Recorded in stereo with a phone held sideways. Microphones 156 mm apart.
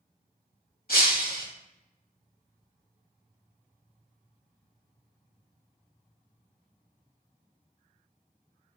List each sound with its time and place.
0.9 s breaking glass: 80° left, 3 m